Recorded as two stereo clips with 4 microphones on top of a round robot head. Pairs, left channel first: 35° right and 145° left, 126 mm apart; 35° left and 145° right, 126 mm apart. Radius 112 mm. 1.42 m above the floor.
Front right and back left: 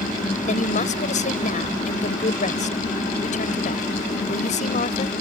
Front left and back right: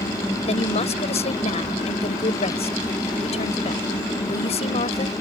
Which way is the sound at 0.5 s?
5° right.